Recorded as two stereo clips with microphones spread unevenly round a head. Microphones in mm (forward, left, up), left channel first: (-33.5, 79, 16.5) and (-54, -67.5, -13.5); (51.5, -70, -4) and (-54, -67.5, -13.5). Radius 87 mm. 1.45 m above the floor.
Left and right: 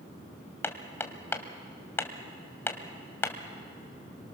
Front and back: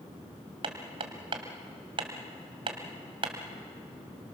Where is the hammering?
145° left, 1.9 m.